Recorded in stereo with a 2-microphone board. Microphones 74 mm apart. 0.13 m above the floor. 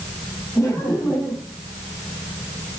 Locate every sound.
0.6 s laughter: 40° left (ahead or behind), 5 m